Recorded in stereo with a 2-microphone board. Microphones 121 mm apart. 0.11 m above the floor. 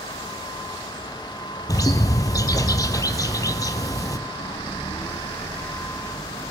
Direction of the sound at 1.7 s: 30° left (ahead or behind).